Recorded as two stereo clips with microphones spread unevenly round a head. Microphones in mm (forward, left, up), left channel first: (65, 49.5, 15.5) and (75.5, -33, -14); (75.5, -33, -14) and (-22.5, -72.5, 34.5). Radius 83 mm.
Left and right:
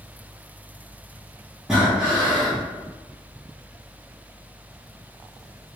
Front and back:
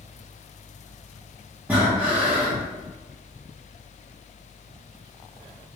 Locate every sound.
1.7 s breathing: 170° left, 1.2 m